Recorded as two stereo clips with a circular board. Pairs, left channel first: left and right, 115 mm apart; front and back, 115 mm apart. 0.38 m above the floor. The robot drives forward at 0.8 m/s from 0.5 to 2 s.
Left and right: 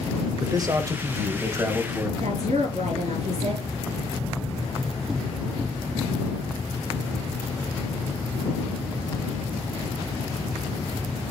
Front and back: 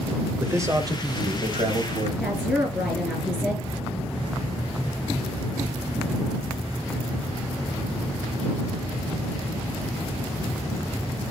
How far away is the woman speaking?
About 5.5 m.